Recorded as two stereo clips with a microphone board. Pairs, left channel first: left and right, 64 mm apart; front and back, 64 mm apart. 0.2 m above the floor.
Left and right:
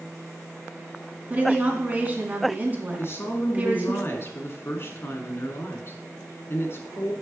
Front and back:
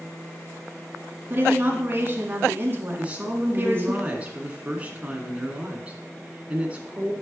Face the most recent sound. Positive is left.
turn(degrees=120)